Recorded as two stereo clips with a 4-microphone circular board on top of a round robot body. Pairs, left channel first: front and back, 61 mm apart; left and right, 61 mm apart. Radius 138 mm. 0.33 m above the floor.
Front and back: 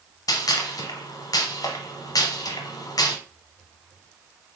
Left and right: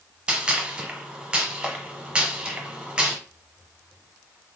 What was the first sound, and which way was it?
A gunshot, 15° right.